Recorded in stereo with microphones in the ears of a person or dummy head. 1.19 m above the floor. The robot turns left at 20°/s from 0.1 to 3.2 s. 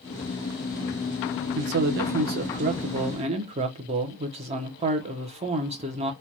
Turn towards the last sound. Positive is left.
turn(degrees=-140)